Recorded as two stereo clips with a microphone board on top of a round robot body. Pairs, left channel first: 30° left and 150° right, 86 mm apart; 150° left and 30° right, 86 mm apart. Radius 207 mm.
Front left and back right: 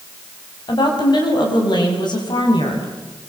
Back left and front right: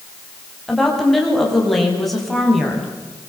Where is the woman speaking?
60° left, 6 m.